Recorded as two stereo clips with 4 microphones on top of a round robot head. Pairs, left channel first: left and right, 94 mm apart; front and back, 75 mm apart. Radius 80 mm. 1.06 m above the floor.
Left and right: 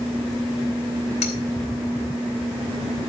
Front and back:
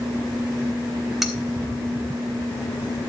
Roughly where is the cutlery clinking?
Left.